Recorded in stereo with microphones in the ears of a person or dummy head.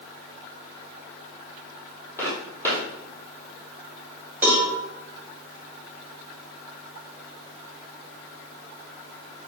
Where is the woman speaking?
I don't hear a woman speaking.